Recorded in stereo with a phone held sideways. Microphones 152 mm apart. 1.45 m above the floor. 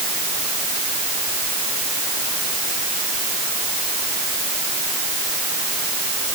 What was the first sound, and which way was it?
Only background noise.